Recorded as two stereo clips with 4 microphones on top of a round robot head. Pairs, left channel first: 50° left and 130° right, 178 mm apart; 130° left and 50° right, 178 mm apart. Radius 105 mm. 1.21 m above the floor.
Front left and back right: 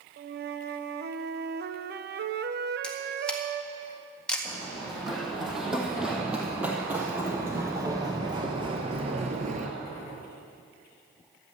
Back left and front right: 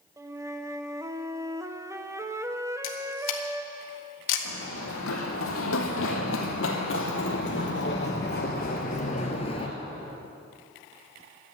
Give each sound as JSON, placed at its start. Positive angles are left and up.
{"t": 0.2, "sound": "a flute", "azimuth_deg": -120, "distance_m": 0.9}
{"t": 2.8, "sound": "a camera shutter", "azimuth_deg": 135, "distance_m": 1.8}
{"t": 4.5, "sound": "running footsteps", "azimuth_deg": 135, "distance_m": 3.5}